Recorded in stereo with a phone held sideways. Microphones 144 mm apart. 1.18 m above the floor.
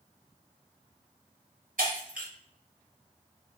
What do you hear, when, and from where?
1.8 s breaking glass: 70° right (ahead or behind), 3 m